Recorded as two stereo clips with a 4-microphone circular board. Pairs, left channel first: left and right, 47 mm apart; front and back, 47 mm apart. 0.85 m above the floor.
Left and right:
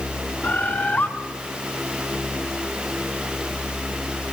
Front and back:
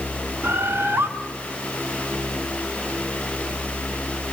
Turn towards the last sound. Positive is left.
turn(degrees=140)